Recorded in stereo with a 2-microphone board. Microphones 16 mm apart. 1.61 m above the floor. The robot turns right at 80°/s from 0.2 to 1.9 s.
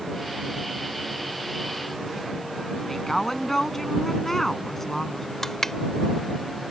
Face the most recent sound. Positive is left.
turn(degrees=25)  # may be behind; listen again after turning